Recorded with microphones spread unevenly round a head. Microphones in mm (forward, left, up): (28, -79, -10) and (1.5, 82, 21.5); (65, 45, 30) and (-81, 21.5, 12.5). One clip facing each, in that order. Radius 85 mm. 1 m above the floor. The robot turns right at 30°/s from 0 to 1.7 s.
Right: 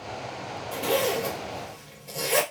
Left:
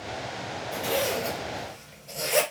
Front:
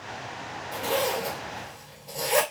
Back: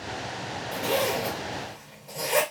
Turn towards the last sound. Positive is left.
turn(degrees=-70)